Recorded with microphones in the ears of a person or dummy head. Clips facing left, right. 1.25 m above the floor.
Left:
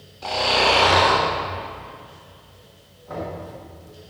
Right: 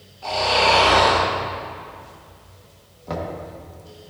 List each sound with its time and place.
0.2 s snoring: 50° left (ahead or behind), 3 m
3.1 s knocking: 80° right, 1.7 m